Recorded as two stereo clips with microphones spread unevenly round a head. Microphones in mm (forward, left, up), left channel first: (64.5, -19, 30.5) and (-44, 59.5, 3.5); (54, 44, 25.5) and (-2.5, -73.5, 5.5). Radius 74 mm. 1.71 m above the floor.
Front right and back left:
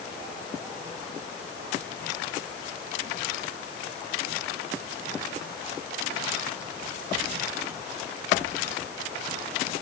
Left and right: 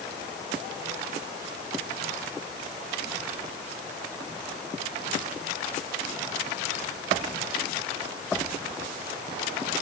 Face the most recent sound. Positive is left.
No sound to turn to.